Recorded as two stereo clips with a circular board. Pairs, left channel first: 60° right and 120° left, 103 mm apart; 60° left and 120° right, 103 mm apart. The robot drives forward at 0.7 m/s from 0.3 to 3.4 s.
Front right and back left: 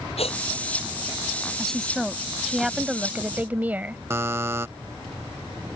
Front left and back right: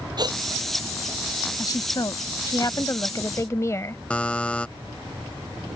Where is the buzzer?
125° left.